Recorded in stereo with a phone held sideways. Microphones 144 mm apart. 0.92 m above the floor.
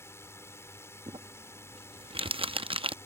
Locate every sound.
0.0 s a drone: 20° left (ahead or behind)
1.1 s crumpling: 40° right (ahead or behind)